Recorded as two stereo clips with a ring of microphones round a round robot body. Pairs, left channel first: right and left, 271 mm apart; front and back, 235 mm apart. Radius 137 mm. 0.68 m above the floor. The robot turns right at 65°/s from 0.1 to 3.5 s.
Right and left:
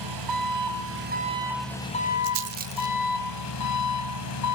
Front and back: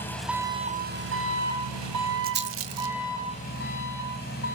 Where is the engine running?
80° left, 4.5 m; by 4.6 s 60° right, 4.5 m.